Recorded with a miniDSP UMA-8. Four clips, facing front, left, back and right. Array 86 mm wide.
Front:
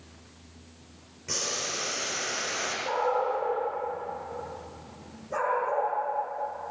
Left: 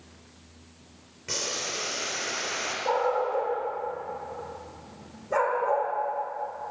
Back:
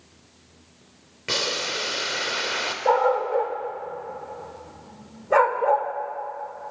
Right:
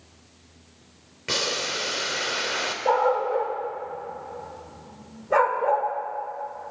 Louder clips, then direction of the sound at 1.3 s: Right 6 dB, back 6 dB; 145° right.